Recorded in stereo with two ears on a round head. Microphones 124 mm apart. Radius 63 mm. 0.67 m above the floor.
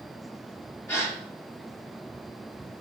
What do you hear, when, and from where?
0.9 s a gasp: 20° left (ahead or behind), 5 m